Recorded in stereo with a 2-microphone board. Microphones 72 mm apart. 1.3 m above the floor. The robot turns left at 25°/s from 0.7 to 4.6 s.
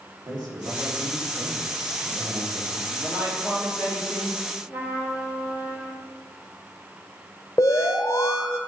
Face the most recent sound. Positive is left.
turn(degrees=45)  # may be behind; listen again after turning